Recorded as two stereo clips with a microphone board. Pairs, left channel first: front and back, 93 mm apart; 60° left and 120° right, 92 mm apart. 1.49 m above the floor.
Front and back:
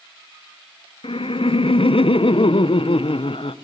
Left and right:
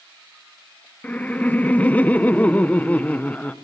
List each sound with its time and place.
1.0 s laughter: 15° right, 0.9 m